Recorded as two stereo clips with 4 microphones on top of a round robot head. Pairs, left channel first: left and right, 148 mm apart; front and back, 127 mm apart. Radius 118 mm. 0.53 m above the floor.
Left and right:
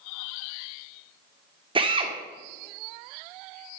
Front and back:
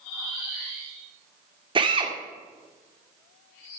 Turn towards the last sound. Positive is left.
turn(degrees=-135)